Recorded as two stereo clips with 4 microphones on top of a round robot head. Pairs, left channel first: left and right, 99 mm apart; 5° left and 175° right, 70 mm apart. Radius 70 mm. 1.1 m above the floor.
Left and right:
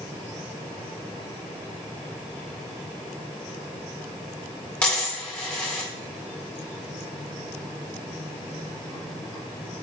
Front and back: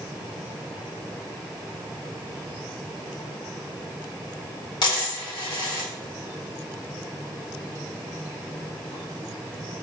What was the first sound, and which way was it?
A dropped coin, 15° left.